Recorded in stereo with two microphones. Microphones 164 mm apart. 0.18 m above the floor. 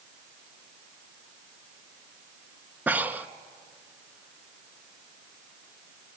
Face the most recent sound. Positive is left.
turn(degrees=-10)  # may be behind; listen again after turning